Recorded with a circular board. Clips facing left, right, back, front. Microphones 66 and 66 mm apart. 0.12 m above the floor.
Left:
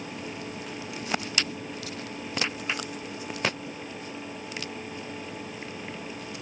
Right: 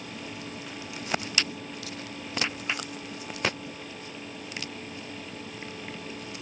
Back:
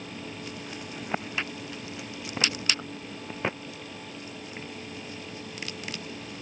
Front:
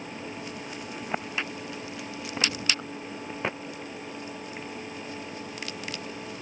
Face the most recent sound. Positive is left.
No sound to turn to.